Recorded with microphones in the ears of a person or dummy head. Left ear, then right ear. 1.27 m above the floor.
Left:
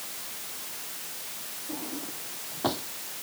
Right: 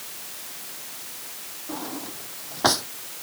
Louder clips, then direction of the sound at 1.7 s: Right 5 dB; 65° right (ahead or behind).